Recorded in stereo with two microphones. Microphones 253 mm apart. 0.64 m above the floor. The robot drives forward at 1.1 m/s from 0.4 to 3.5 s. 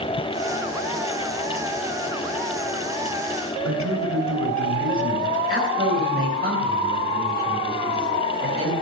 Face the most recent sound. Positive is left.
turn(degrees=-40)  # may be behind; listen again after turning